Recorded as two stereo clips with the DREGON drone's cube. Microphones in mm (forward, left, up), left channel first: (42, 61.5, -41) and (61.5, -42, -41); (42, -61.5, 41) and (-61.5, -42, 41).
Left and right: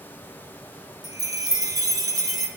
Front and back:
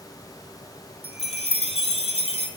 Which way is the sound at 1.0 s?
25° right.